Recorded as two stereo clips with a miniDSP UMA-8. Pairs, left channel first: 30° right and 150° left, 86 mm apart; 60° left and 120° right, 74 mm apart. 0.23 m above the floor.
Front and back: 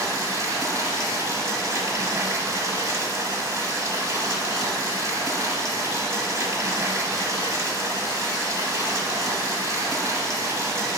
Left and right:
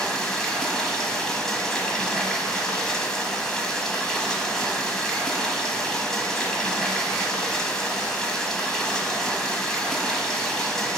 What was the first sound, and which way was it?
Running water, 135° left.